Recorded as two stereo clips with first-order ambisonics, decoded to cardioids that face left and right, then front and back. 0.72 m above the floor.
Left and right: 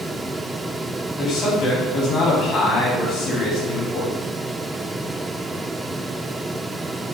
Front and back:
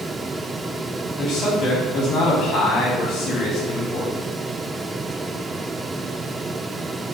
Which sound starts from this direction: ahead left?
A man speaking, at 1.2 s.